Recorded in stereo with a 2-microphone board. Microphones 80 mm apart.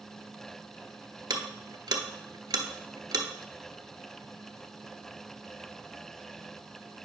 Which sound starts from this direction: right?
Ticking, at 1.3 s.